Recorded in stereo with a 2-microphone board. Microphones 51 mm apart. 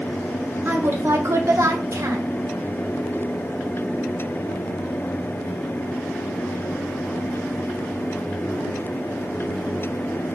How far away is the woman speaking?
About 1.0 m.